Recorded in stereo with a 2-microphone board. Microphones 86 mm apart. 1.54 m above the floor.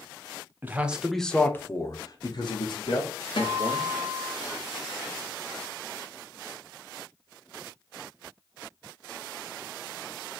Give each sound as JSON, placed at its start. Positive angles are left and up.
{"t": 0.6, "sound": "a man speaking", "side_deg": -20, "distance_m": 0.7}
{"t": 3.4, "sound": "a guitar", "side_deg": 80, "distance_m": 1.0}